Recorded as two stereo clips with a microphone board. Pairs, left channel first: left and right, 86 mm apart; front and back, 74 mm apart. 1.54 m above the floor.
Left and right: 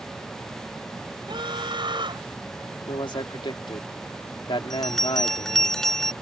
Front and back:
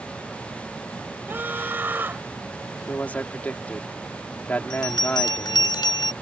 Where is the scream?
115° right.